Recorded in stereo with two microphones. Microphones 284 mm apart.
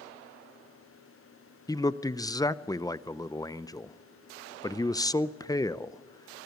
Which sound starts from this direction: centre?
A man speaking, at 1.7 s.